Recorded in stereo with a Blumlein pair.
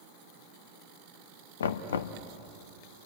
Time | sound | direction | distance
1.6 | knocking | 65° left | 1.1 m